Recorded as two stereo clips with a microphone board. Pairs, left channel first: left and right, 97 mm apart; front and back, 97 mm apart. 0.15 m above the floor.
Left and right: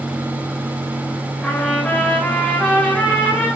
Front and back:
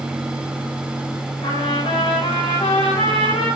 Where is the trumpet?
Straight ahead, 5 m.